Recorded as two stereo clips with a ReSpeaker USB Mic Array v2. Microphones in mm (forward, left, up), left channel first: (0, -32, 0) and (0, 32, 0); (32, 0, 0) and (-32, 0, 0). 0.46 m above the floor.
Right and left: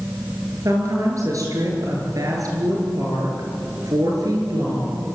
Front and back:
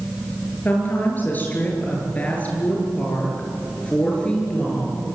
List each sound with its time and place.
0.7 s a woman speaking: 60° left, 8.5 m; by 5.1 s 75° left, 7.5 m